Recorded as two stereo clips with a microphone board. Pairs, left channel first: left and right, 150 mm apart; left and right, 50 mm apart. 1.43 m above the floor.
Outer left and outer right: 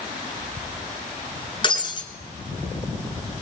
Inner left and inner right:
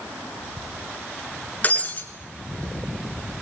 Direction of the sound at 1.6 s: 30° left (ahead or behind).